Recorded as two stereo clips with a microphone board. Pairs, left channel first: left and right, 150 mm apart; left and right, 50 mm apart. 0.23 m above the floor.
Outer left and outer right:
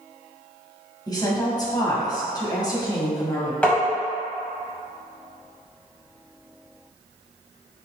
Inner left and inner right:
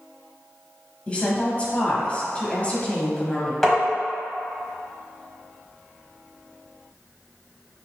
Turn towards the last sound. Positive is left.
turn(degrees=10)  # may be behind; listen again after turning